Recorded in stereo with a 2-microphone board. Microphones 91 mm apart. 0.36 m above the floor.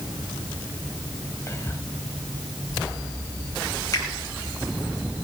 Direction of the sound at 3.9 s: 40° left (ahead or behind).